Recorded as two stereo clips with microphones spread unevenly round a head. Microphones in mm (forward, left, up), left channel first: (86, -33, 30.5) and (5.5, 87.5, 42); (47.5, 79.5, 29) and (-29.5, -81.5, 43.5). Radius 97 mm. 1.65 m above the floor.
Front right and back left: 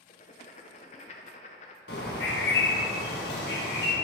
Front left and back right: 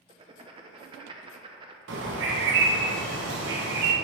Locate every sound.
0.1 s writing: 80° right, 0.6 m
1.9 s a bird: 95° right, 1.3 m